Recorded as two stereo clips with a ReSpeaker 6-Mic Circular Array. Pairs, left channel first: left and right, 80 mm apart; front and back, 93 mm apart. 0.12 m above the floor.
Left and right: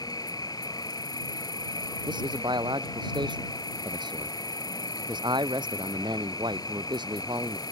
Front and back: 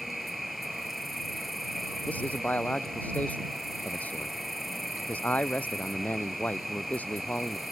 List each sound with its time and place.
0.0 s an insect: 90° left
2.1 s a man speaking: 75° right